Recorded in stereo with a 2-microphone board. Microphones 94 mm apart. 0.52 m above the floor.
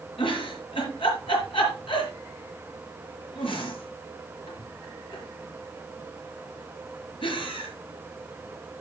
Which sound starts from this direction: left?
A giggle, at 0.2 s.